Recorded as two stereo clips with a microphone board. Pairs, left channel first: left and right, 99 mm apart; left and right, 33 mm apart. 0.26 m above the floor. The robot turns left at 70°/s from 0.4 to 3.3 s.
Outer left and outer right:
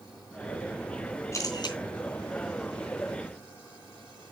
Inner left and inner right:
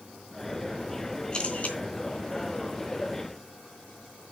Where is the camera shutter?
145° left, 3 m; by 1.8 s 115° left, 3 m.